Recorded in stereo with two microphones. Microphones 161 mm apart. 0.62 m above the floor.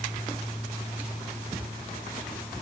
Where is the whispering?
I don't hear whispering.